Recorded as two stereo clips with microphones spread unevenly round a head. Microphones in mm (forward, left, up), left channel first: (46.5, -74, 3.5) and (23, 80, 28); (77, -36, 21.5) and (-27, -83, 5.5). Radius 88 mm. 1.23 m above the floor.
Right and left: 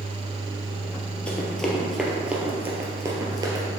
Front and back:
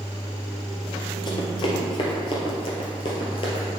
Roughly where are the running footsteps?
Ahead.